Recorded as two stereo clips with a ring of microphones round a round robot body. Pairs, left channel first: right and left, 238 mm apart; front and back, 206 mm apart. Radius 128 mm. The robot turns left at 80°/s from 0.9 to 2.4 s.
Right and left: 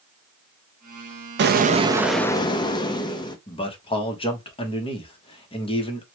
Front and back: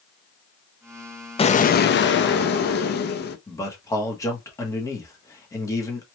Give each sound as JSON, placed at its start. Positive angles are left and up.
{"t": 1.4, "sound": "an explosion", "azimuth_deg": 60, "distance_m": 0.5}
{"t": 3.5, "sound": "a man speaking", "azimuth_deg": -55, "distance_m": 0.8}